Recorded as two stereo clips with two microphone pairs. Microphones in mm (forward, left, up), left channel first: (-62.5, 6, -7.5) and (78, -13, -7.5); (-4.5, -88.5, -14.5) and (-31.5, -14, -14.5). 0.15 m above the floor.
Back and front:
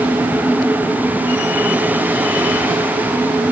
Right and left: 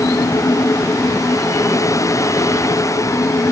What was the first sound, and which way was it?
Only background noise.